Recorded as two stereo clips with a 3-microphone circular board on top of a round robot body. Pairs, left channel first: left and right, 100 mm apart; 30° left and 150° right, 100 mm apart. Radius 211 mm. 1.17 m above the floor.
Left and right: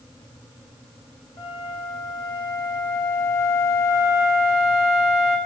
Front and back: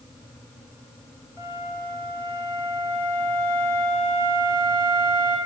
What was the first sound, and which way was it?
A flute, 145° left.